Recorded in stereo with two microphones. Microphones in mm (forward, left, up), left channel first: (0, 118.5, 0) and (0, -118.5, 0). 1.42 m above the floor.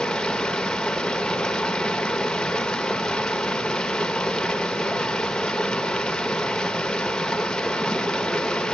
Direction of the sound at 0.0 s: 5° left (ahead or behind).